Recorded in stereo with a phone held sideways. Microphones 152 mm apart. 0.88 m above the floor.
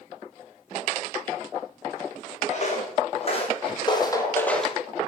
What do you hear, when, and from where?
2.5 s footsteps: 50° left (ahead or behind), 4 m; by 4.8 s 5° right (ahead or behind), 1.5 m